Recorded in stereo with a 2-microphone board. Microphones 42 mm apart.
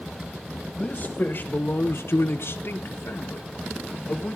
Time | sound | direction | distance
0.8 | a man speaking | 30° left (ahead or behind) | 1.4 m